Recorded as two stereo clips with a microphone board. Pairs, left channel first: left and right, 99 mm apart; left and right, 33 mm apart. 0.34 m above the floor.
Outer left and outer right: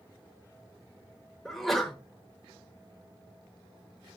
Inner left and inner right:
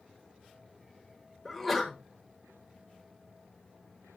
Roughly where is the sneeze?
Centre.